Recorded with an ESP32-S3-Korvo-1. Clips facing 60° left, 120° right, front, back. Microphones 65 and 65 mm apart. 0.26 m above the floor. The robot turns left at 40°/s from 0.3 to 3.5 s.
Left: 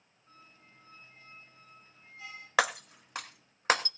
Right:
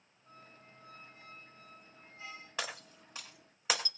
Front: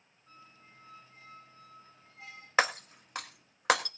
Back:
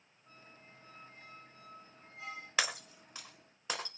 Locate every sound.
0.3 s a squeak: 105° right, 10 m; by 2.5 s 165° left, 10 m
2.6 s breaking glass: 50° left, 0.9 m; by 3.9 s 15° left, 0.9 m